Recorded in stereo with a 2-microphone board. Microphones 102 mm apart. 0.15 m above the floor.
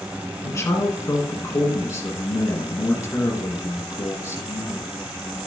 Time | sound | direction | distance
0.4 | a man speaking | 35° left (ahead or behind) | 1.8 m